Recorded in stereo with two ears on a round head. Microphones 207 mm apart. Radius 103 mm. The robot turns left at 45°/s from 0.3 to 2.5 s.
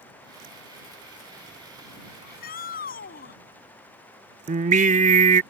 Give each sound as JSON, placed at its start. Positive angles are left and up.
{"t": 2.2, "sound": "a shout", "side_deg": 55}
{"t": 4.5, "sound": "singing", "side_deg": -35}